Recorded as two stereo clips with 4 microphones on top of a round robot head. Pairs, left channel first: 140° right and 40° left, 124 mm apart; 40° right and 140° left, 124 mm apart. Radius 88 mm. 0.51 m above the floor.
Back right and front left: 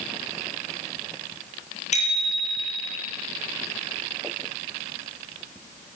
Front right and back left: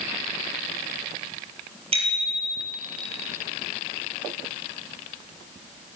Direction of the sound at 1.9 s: 175° right.